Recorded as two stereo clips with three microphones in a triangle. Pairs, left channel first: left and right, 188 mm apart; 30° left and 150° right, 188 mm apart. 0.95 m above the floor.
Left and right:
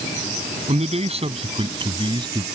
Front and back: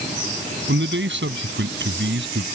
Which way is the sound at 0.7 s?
145° right.